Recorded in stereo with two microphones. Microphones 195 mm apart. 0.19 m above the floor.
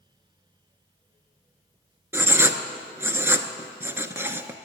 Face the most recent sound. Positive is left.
turn(degrees=-15)  # may be behind; listen again after turning